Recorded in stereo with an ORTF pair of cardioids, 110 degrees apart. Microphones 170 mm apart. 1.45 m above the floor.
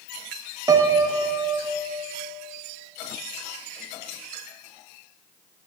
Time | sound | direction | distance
0.7 | a piano | 20° right | 0.9 m